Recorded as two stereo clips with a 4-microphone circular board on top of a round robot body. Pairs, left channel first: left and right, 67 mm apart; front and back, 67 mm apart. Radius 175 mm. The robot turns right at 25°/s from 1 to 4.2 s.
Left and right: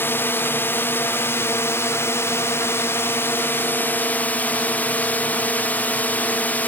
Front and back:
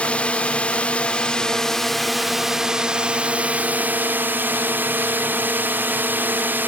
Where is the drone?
60° left; by 6.7 s 140° left.